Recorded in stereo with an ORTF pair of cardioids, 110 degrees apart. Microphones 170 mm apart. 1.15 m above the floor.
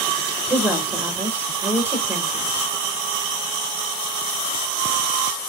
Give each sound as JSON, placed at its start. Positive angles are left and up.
{"t": 0.5, "sound": "a woman speaking", "azimuth_deg": -15, "distance_m": 1.4}